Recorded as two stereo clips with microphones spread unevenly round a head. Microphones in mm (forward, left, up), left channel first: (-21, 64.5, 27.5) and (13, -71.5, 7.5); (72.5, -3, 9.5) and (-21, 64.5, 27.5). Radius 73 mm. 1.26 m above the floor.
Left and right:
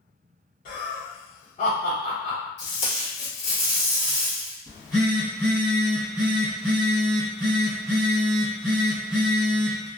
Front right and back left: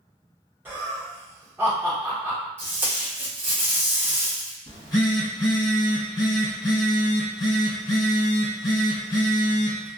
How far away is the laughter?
About 1.1 m.